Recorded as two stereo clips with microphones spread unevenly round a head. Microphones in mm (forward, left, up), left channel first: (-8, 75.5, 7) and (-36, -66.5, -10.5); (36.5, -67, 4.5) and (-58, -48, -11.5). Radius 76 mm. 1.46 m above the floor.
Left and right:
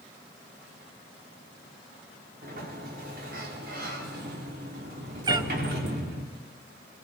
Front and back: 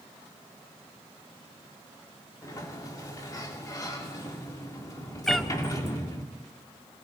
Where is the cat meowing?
65° right, 0.6 m.